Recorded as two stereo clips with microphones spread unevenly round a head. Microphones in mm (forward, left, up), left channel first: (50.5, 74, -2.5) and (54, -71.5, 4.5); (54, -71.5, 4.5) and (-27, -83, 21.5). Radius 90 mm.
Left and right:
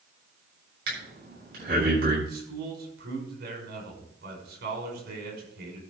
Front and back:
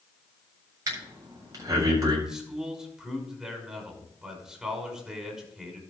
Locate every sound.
0.9 s breathing: 125° right, 7.5 m
2.3 s a man speaking: 95° right, 5.5 m